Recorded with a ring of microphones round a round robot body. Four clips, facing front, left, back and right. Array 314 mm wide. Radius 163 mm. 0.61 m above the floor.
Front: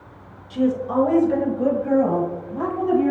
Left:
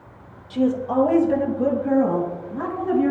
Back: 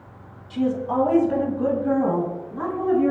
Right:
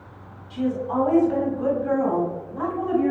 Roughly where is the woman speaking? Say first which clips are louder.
Left 4 dB, front 2 dB; left.